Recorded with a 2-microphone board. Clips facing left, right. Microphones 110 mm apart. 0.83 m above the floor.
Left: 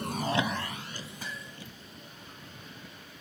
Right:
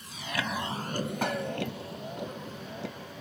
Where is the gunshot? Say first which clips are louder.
Right 13 dB; 65° right (ahead or behind).